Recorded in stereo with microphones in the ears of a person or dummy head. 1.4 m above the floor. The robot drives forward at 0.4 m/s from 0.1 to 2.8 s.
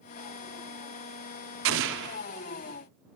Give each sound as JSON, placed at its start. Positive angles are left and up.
{"t": 1.6, "sound": "an explosion", "side_deg": -70, "distance_m": 0.5}